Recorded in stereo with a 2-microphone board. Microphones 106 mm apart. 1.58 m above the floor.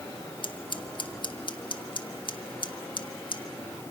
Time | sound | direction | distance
0.4 | scissors | 50° left (ahead or behind) | 1.3 m